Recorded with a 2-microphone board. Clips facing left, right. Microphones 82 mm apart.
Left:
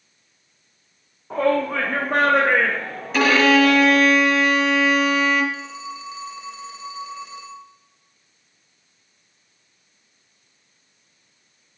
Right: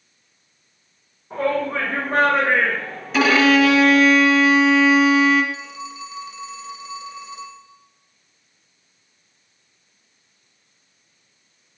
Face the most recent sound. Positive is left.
turn(degrees=25)  # may be behind; listen again after turning